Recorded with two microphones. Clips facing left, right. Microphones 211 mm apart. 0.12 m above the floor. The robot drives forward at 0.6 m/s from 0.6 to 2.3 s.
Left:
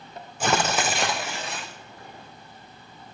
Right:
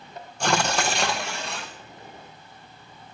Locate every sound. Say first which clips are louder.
0.4 s tearing paper: even; 5° left (ahead or behind), 1.8 m